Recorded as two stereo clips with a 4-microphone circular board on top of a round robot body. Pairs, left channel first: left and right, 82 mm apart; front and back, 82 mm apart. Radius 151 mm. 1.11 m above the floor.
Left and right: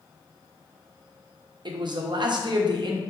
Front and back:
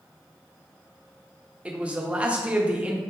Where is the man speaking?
105° right, 0.8 m.